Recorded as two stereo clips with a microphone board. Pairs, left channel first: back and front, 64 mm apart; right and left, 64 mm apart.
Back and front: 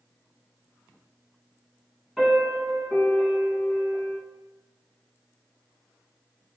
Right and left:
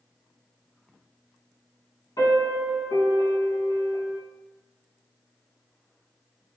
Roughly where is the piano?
Right.